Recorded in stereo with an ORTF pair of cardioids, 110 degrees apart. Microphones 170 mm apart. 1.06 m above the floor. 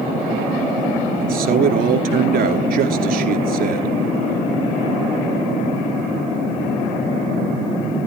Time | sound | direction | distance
1.2 | a man speaking | 65° right | 2.5 m